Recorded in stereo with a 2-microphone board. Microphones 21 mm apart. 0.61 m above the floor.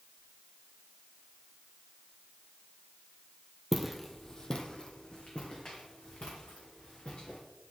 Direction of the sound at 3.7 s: 15° right (ahead or behind).